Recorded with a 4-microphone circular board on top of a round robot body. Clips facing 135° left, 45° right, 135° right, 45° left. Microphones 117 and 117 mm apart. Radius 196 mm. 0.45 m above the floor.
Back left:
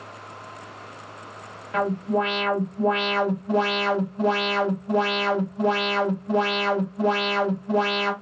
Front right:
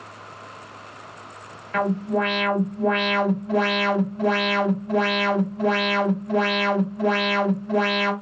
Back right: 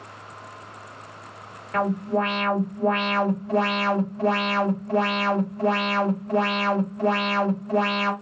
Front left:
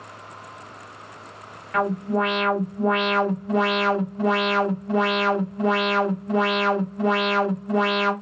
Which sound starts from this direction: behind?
An alarm, at 1.7 s.